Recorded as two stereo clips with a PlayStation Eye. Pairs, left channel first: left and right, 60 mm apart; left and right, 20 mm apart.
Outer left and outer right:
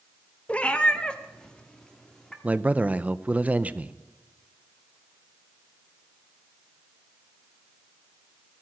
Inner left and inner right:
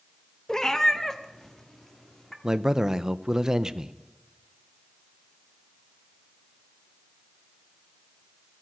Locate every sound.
0.5 s a cat meowing: 20° left (ahead or behind), 0.8 m; by 2.3 s 10° left (ahead or behind), 1.7 m
2.4 s a man speaking: 25° right (ahead or behind), 0.6 m